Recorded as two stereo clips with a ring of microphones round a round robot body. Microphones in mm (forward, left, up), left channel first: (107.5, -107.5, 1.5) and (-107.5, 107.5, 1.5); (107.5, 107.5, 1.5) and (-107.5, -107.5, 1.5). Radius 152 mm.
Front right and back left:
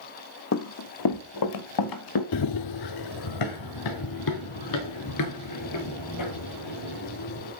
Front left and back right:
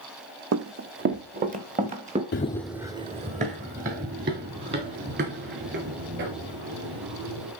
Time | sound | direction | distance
0.5 | running footsteps | 90° right | 0.8 m
2.3 | running footsteps | 10° right | 0.6 m